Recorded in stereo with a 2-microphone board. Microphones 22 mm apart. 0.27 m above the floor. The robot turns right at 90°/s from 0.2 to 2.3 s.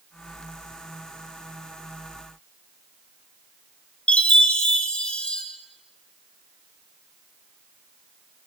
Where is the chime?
55° left (ahead or behind), 5.5 m.